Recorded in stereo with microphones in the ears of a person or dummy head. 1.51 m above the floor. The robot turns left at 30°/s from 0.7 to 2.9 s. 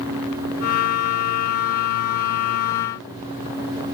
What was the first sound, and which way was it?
Only background noise.